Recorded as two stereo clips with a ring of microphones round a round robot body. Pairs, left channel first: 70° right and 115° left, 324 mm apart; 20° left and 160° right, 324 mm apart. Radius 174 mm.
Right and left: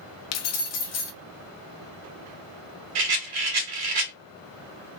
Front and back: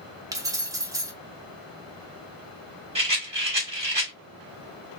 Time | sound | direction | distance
0.3 | keys jangling | 80° right | 0.7 m
3.0 | a rattle | 130° left | 1.6 m